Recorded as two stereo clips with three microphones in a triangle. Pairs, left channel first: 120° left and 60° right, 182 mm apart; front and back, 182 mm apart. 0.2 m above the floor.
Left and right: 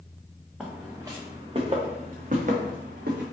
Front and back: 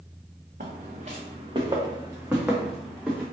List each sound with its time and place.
0.6 s footsteps: 145° right, 1.1 m; by 3.2 s 85° right, 1.5 m